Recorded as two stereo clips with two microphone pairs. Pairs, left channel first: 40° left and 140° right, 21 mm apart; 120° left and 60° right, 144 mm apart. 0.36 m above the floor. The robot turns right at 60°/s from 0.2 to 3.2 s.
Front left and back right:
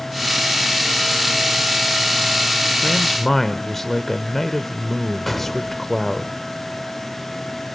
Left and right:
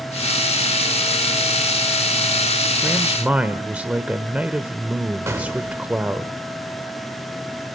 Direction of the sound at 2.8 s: 20° right.